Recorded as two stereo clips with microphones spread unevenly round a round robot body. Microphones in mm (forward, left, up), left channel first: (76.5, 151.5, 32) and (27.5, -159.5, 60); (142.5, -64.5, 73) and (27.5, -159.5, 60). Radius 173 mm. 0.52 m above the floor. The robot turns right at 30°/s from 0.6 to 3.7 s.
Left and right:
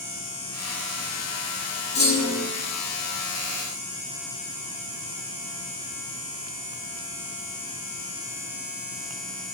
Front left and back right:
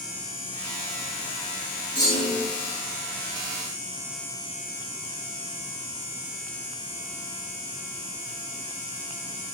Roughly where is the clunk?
Behind left.